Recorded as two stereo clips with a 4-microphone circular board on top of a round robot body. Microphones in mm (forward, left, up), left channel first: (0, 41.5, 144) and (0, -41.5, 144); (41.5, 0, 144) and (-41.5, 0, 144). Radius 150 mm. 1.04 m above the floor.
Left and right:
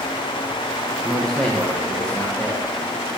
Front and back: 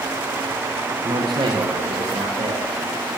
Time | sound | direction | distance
1.0 | a man speaking | 175° left | 1.2 m